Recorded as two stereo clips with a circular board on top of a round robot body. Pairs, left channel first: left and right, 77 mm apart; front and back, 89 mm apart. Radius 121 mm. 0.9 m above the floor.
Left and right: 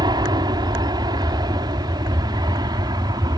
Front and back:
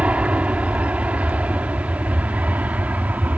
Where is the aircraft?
105° right; by 3.4 s 110° right.